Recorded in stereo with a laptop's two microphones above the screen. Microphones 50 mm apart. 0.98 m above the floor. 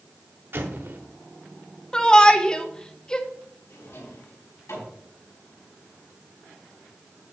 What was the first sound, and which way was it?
An explosion, 50° right (ahead or behind).